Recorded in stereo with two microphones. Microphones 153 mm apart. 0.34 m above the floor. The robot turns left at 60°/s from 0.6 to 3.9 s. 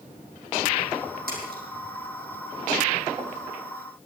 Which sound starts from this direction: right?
A splash, at 1.3 s.